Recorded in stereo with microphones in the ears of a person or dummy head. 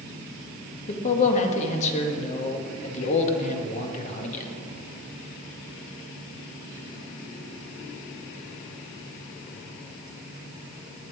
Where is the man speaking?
40° left (ahead or behind), 1.6 m.